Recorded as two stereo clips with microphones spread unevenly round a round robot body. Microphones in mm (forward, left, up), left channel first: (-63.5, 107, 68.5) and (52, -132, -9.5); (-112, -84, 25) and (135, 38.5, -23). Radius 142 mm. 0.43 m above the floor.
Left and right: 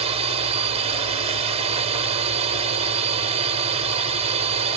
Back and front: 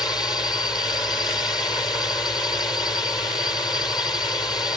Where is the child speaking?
No child speaking in this recording.